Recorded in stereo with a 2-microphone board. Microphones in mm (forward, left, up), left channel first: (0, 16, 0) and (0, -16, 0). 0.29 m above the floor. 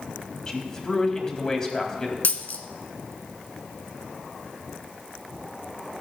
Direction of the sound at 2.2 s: 65° left (ahead or behind).